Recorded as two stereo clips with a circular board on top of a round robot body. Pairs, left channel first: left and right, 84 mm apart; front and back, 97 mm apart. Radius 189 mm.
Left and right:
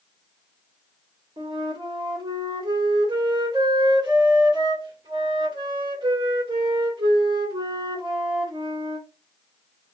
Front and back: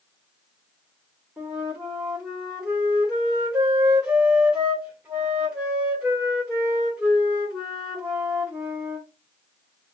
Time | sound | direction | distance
1.4 | a flute | 100° right | 2.5 m